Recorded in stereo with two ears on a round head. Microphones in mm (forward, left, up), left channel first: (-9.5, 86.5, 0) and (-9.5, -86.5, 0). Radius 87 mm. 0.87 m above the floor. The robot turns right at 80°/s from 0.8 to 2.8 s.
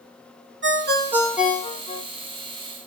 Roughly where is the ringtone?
Ahead right.